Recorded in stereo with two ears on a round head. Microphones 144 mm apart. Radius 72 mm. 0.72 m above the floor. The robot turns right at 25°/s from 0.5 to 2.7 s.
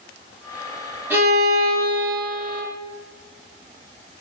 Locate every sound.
1.1 s a violin: 155° right, 1.3 m; by 2.6 s 120° right, 1.3 m